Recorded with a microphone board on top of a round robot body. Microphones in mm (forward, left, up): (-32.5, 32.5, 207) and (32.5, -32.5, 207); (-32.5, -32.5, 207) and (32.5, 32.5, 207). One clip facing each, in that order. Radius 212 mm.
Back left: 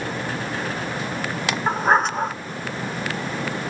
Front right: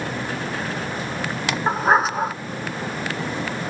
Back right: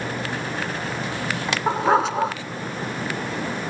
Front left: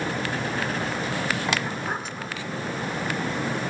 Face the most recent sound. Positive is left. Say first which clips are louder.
# front right 1 dB, back right 12 dB
turn(degrees=-130)